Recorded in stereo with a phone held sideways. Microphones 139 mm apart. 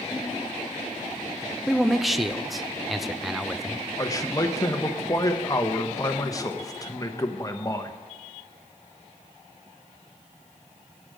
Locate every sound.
1.7 s a man speaking: centre (ahead or behind), 0.5 m
4.0 s a man speaking: 25° left (ahead or behind), 0.9 m